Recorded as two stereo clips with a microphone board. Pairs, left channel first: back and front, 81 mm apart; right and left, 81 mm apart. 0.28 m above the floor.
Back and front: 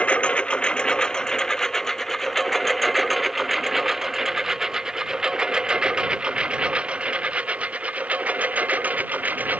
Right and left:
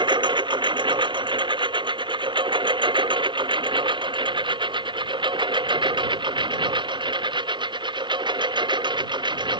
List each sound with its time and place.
0.0 s a lawn mower: 105° left; by 9.6 s 70° left